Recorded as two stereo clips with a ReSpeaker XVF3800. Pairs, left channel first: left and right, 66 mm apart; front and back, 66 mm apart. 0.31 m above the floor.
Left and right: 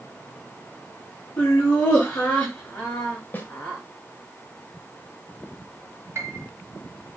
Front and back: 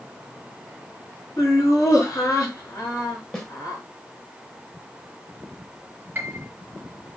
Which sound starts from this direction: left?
A snare drum, at 3.3 s.